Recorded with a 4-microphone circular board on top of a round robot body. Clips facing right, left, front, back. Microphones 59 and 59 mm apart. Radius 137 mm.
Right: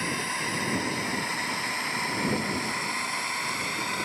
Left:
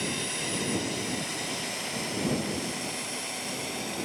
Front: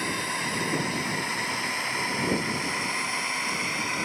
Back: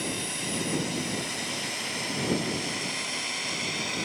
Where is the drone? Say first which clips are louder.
Right 3 dB, front 4 dB; 40° right; by 4.0 s 60° right.